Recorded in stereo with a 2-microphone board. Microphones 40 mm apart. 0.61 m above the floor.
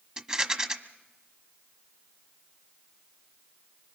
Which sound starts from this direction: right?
A rattle, at 0.2 s.